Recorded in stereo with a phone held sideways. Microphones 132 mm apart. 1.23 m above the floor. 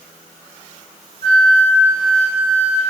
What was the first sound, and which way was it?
A flute, 65° right (ahead or behind).